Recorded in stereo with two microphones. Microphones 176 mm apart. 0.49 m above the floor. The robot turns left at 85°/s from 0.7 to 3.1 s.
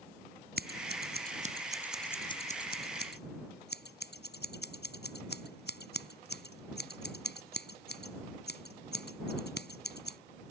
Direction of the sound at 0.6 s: 70° right (ahead or behind).